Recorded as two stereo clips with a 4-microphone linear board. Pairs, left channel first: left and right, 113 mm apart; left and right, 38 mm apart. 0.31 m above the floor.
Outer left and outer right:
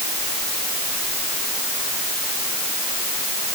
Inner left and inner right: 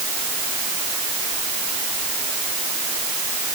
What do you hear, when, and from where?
Only background noise.